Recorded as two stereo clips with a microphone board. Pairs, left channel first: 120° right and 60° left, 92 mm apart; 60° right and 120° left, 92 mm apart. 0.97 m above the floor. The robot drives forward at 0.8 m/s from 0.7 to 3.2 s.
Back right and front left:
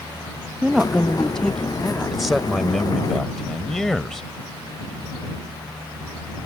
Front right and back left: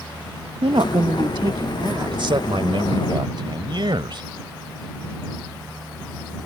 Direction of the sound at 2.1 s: 150° left.